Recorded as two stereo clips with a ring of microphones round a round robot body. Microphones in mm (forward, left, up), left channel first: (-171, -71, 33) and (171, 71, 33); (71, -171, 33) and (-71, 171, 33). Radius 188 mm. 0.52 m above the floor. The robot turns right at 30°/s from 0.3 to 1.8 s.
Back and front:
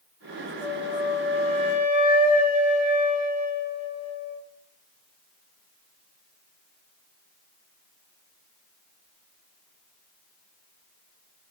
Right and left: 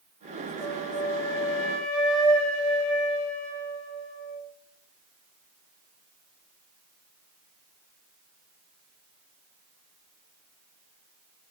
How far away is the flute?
About 3.5 m.